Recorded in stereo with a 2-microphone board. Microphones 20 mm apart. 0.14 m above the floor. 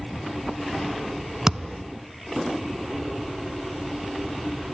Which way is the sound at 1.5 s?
30° right (ahead or behind).